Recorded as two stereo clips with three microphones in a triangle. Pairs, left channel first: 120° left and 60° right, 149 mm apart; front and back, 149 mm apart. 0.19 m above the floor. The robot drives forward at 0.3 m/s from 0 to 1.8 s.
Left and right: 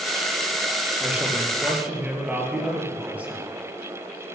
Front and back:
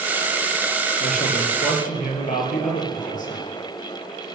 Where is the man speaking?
20° left, 5 m.